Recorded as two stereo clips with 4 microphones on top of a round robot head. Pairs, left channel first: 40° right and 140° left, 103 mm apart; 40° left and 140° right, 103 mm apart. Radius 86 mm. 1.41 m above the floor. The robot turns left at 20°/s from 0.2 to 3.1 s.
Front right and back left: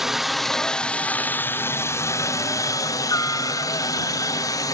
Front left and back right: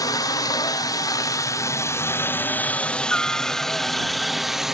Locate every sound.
0.0 s a helicopter: 55° left; by 4.7 s 60° right